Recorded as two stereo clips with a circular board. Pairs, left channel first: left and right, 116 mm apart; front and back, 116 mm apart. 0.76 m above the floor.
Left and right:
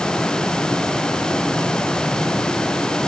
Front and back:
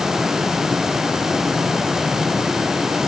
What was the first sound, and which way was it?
Only background noise.